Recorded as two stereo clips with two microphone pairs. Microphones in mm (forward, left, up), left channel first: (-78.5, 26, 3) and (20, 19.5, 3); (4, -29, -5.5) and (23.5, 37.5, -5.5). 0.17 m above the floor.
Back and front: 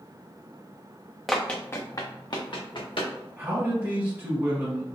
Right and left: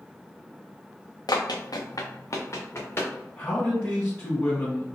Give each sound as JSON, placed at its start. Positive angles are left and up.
{"t": 1.3, "sound": "running footsteps", "azimuth_deg": -95, "distance_m": 0.8}
{"t": 3.4, "sound": "a man speaking", "azimuth_deg": -50, "distance_m": 1.1}